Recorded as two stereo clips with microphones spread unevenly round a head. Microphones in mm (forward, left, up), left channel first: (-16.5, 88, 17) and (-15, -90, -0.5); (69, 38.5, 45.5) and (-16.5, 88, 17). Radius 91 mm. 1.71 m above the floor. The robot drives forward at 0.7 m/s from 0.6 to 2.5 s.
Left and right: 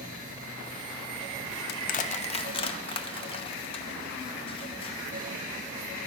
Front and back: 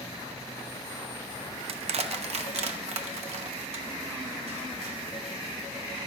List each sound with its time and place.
1.7 s crushing: 125° left, 0.6 m; by 5.0 s 155° left, 1.0 m